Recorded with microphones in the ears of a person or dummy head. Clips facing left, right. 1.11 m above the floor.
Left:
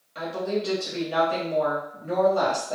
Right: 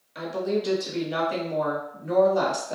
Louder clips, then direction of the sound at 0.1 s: Right 1 dB; 15° right (ahead or behind).